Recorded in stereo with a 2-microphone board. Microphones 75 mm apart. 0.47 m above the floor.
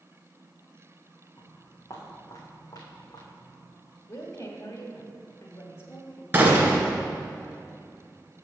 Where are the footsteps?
40° left (ahead or behind), 2.5 m; by 3.5 s 70° left (ahead or behind), 1.9 m.